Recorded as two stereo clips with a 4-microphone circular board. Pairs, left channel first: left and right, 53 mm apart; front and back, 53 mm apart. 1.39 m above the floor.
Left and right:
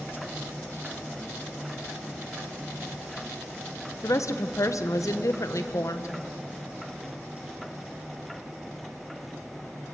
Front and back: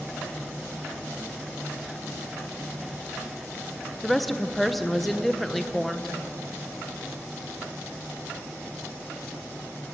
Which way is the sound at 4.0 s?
90° left.